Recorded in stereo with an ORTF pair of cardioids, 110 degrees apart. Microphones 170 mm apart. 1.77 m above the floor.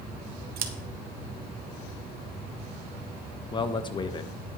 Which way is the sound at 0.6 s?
60° right.